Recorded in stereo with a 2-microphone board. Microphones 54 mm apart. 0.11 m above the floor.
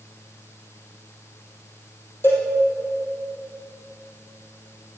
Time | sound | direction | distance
2.2 | a cowbell | 50° left (ahead or behind) | 2.5 m